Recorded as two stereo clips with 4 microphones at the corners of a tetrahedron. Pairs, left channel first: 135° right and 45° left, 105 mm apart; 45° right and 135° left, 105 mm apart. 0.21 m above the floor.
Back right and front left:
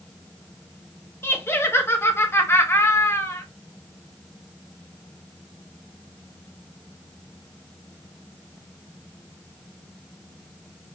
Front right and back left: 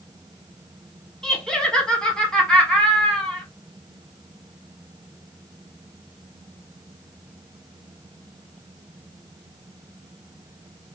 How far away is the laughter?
About 1.0 m.